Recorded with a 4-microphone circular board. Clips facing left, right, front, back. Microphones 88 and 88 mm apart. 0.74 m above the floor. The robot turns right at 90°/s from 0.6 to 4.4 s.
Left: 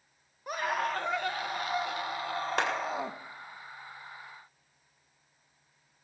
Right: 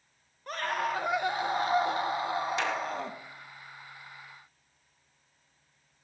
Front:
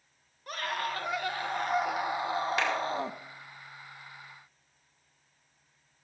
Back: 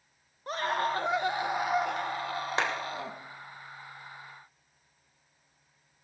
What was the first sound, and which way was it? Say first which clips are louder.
A scream: even, back 4 dB; 160° left.